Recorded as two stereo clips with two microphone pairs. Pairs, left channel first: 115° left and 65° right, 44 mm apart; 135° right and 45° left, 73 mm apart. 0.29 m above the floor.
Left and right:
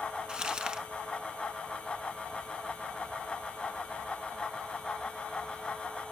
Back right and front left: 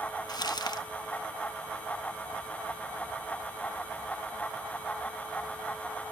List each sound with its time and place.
0.3 s crumpling: 130° right, 1.1 m